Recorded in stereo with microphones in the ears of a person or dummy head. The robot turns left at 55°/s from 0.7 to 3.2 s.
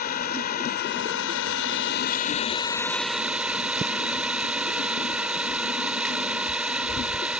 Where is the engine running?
130° left; by 7.4 s 5° right.